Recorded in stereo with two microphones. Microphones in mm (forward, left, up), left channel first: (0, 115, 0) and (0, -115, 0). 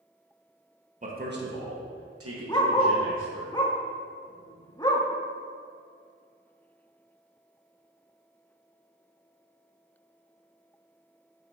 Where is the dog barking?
15° left (ahead or behind), 0.7 m.